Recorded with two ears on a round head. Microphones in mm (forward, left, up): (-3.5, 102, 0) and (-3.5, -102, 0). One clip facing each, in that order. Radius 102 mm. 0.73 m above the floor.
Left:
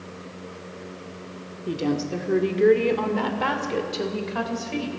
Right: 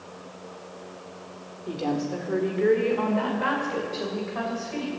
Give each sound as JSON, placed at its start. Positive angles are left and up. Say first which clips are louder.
{"t": 1.7, "sound": "a woman speaking", "louder": "left 2 dB", "side_deg": 35, "distance_m": 1.6}